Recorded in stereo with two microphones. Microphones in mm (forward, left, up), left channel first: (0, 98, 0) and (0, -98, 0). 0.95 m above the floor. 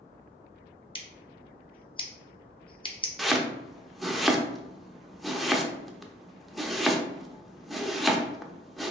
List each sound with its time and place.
0.9 s scissors: 25° left (ahead or behind), 0.7 m
3.2 s chopping: centre (ahead or behind), 0.5 m